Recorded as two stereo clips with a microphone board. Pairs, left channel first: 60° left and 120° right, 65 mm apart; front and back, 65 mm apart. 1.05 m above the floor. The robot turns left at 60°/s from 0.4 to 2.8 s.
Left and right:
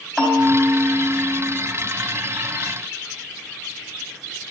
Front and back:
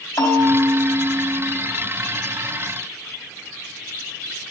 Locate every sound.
0.2 s a bell: 30° right, 4 m; by 1.5 s 95° right, 4 m